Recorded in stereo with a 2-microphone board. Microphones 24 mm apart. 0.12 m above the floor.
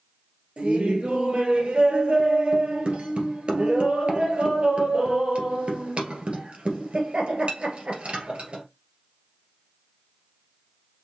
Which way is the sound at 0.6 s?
45° right (ahead or behind).